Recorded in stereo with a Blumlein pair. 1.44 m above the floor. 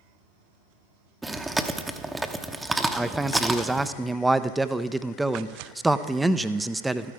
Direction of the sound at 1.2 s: 10° right.